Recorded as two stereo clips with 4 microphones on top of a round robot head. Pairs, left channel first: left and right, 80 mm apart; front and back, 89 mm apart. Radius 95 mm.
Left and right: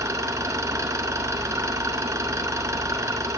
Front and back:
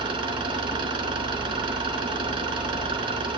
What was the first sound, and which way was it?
An engine running, 140° right.